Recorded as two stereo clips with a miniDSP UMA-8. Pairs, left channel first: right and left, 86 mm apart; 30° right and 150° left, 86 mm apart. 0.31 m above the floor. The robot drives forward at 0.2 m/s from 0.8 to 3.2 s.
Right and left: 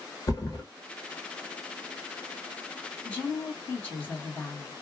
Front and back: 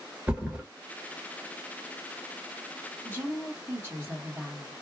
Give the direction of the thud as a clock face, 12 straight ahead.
5 o'clock.